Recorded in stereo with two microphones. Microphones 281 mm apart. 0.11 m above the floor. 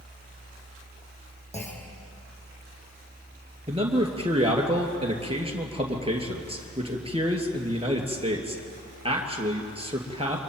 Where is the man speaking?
20° right (ahead or behind), 2.5 m.